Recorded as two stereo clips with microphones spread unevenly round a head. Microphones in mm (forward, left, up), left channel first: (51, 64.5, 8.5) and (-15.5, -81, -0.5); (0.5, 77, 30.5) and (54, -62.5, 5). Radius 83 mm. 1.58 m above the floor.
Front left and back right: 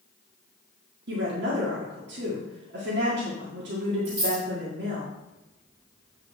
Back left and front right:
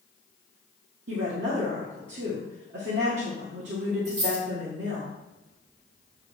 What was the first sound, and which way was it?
A woman speaking, 95° right.